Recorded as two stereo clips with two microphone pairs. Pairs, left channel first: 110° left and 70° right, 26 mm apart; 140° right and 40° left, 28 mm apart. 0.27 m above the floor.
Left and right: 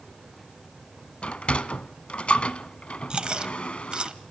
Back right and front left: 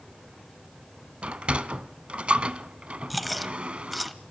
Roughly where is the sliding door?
Left.